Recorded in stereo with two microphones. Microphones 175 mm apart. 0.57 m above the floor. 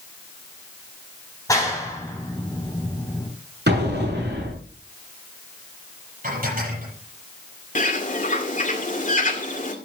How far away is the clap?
About 3.5 m.